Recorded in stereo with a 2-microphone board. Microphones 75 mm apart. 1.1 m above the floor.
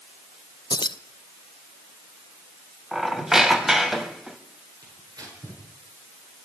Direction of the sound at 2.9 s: 5° right (ahead or behind).